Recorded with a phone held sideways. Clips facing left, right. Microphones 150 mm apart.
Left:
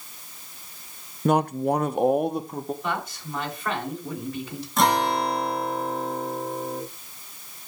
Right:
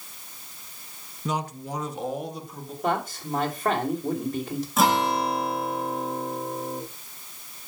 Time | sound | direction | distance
1.2 | a man speaking | 55° left (ahead or behind) | 0.5 m
2.8 | a man speaking | 50° right (ahead or behind) | 2.5 m
4.8 | a guitar | 5° right (ahead or behind) | 1.4 m